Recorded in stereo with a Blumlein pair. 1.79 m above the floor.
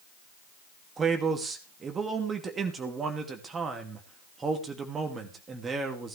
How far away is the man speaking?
About 2.5 m.